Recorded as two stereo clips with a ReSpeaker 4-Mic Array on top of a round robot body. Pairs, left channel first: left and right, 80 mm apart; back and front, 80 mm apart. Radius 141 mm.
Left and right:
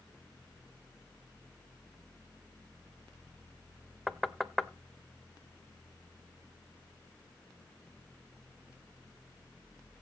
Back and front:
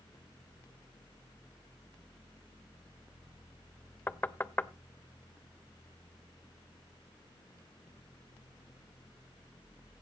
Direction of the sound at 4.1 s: 170° right.